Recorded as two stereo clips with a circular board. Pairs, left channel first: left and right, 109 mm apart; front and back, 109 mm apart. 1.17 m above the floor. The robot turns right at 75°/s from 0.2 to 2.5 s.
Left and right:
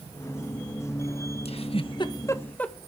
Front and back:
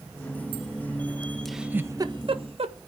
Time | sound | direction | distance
1.4 | a giggle | 85° left | 1.5 m